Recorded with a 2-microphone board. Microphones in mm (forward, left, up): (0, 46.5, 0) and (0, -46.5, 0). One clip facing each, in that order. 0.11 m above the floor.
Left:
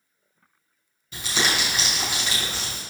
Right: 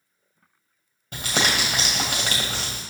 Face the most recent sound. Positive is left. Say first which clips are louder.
# right 1 dB
turn(degrees=-50)  # may be behind; listen again after turning